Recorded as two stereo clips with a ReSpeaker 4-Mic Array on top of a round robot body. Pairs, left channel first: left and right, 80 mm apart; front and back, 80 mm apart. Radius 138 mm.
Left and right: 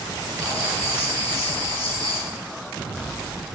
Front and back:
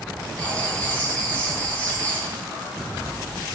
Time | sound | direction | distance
0.4 | writing | 65° right | 4.5 m